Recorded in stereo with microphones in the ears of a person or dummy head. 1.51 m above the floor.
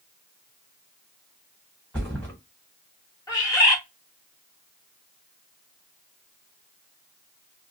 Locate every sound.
1.9 s a thud: 5° left (ahead or behind), 1.0 m
3.3 s a bird: 20° left (ahead or behind), 1.4 m